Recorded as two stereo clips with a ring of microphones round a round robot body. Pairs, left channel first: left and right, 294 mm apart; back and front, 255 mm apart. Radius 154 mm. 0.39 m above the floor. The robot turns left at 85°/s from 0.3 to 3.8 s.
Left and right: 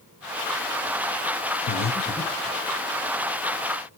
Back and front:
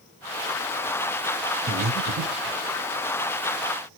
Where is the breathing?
45° left, 0.9 m; by 2.6 s 30° right, 0.9 m.